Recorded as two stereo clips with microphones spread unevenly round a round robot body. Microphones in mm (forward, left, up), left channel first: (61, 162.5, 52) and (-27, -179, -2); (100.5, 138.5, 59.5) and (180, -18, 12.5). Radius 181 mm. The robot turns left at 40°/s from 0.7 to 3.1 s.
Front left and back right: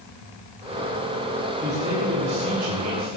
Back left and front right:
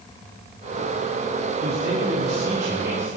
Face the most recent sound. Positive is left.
turn(degrees=-100)